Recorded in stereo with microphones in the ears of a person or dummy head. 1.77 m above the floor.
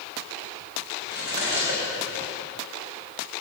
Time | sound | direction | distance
1.1 | cutlery clinking | 55° left (ahead or behind) | 4 m